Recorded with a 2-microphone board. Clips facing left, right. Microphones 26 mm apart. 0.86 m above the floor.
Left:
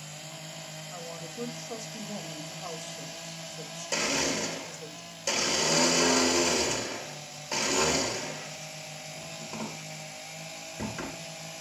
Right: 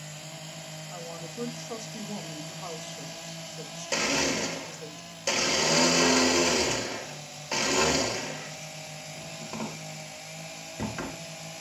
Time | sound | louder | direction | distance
0.9 | a woman speaking | right 1 dB | 25° right (ahead or behind) | 1.9 m
3.9 | a blender | right 2 dB | 20° right (ahead or behind) | 1.6 m